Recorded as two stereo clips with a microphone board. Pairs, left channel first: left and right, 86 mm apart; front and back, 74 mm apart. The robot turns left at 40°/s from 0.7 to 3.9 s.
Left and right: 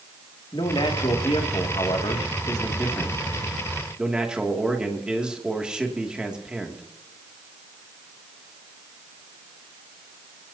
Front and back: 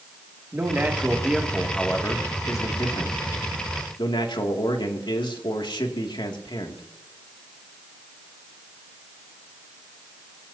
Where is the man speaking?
120° left, 2.5 m; by 6.8 s 10° right, 2.5 m.